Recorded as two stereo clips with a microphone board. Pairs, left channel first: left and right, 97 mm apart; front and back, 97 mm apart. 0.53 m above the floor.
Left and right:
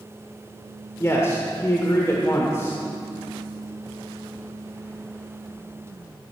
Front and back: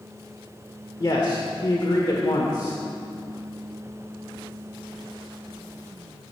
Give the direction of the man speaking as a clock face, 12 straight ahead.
11 o'clock.